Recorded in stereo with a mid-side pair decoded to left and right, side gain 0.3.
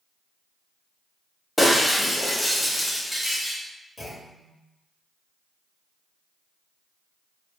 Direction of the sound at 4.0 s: 30° left.